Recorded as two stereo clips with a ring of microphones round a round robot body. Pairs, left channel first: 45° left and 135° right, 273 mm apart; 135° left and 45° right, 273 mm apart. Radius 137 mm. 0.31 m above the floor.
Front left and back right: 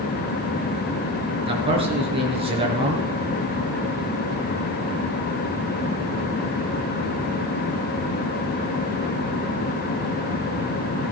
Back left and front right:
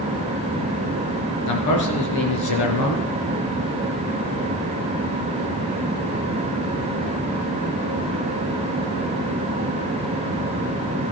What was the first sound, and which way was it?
A man speaking, 155° left.